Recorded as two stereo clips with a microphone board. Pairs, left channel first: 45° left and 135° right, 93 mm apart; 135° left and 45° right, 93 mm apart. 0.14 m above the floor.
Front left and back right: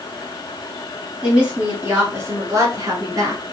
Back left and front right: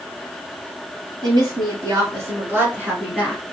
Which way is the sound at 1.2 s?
60° right.